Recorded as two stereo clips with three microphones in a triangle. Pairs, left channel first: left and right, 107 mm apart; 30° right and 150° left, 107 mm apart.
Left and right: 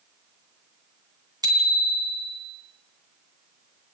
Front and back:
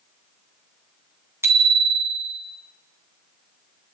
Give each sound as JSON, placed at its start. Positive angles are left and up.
{"t": 1.4, "sound": "a bicycle bell", "azimuth_deg": -145, "distance_m": 3.0}